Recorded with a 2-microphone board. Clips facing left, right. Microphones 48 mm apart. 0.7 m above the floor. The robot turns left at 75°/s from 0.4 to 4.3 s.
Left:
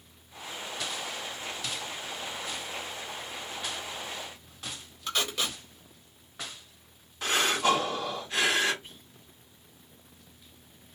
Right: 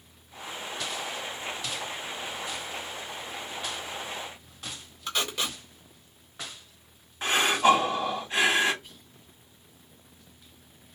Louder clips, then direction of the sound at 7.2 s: Right 4 dB; 25° right (ahead or behind).